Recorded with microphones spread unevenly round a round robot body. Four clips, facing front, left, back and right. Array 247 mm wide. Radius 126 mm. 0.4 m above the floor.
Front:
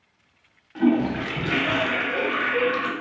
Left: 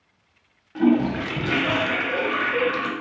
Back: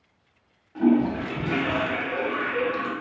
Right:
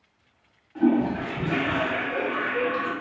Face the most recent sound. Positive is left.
turn(degrees=65)